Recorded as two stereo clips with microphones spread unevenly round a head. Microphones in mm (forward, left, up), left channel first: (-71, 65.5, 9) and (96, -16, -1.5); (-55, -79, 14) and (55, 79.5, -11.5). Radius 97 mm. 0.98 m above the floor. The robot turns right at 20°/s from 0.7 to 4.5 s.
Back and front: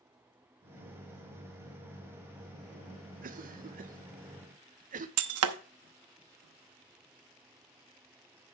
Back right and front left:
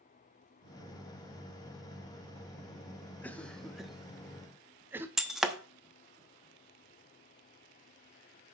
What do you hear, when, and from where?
3.2 s a cough: 40° right, 0.7 m; by 5.1 s 10° right, 0.7 m
5.2 s breaking glass: 35° right, 0.8 m